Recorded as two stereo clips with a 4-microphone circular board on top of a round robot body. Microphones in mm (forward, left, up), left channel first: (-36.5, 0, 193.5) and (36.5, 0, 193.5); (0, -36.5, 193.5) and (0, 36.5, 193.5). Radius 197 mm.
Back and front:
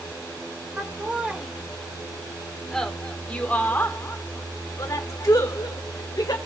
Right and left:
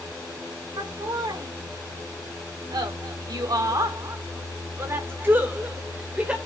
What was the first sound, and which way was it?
Laughter, 70° left.